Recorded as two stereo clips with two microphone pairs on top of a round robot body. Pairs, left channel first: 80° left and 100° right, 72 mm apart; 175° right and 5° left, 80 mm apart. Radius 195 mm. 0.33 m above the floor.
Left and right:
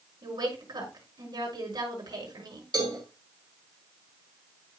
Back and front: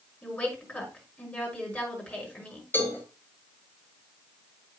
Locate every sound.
0.2 s a woman speaking: 105° right, 5.5 m
2.7 s a cowbell: 115° right, 5.5 m